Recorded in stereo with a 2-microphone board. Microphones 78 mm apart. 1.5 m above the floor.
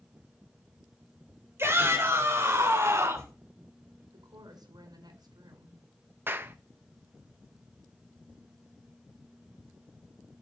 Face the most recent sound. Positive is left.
turn(degrees=-30)  # may be behind; listen again after turning